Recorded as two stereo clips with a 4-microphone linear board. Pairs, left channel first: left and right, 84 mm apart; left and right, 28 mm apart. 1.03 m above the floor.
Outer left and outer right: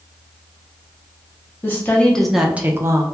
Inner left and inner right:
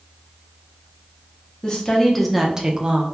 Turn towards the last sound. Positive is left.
turn(degrees=-40)  # may be behind; listen again after turning